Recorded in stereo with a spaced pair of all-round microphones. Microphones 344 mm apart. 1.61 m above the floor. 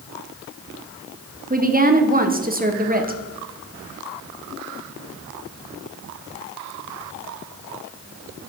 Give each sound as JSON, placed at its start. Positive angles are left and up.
{"t": 1.5, "sound": "a woman speaking", "side_deg": -25, "distance_m": 0.9}